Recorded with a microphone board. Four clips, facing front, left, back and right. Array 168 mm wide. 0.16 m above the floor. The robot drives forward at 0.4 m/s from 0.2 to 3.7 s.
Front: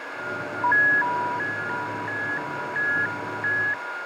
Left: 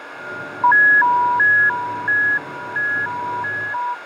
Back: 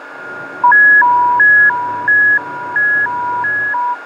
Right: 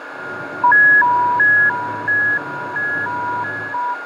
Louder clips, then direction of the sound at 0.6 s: Right 1 dB, back 13 dB; 175° right.